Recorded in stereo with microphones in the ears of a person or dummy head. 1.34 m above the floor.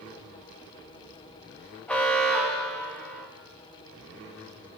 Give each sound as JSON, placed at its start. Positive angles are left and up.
{"t": 1.9, "sound": "an alarm", "side_deg": 10, "distance_m": 0.8}